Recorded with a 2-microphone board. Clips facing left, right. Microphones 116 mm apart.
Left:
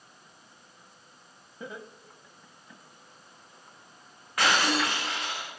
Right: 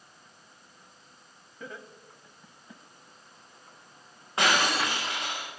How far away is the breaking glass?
About 5.5 m.